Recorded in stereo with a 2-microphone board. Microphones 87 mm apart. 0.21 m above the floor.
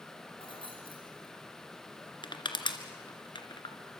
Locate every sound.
0.4 s keys jangling: 70° left (ahead or behind), 5.5 m
2.2 s crushing: 65° left (ahead or behind), 2.0 m